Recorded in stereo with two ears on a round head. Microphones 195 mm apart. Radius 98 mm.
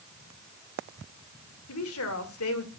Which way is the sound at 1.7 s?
75° left (ahead or behind).